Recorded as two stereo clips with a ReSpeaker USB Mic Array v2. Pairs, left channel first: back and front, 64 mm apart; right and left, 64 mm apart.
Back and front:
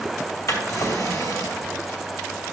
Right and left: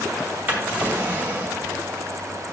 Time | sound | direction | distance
0.5 | a drawer | 150° left | 2 m